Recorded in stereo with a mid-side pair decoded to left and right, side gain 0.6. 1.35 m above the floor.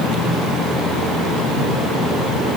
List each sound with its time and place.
Only background noise.